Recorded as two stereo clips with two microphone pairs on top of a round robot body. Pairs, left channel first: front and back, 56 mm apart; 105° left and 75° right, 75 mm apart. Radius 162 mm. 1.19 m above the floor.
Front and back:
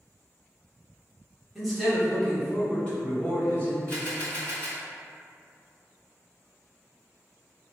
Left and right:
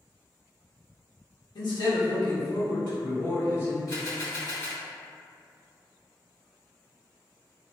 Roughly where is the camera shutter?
Ahead left.